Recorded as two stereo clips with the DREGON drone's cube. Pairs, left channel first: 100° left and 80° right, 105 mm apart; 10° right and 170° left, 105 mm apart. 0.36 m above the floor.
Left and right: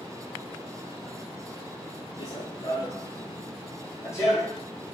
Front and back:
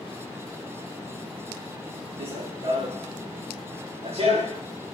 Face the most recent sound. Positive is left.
turn(degrees=165)